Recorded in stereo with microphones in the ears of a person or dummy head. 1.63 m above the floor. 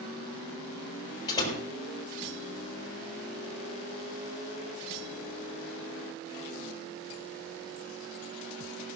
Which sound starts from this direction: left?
A door slam, at 1.3 s.